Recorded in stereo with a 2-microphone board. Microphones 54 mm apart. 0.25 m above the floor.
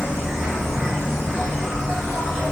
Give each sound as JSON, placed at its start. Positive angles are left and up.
{"t": 0.0, "sound": "an insect", "side_deg": 0, "distance_m": 1.4}